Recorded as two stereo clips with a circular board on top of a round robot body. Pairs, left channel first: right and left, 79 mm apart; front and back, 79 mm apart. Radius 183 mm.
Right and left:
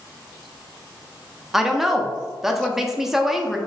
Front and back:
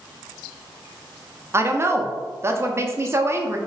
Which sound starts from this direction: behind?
A woman speaking, at 1.5 s.